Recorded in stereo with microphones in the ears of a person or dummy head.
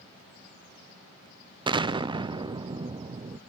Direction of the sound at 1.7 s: 20° right (ahead or behind).